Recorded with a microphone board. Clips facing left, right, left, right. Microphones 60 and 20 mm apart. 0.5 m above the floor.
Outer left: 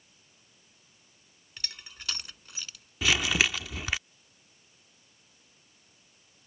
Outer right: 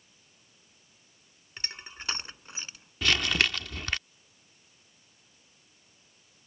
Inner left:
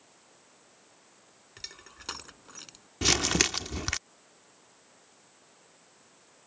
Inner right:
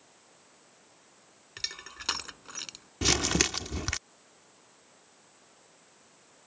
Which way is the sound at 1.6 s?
30° right (ahead or behind).